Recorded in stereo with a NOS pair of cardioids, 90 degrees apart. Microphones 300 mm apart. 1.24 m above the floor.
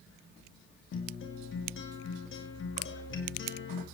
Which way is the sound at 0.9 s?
45° left.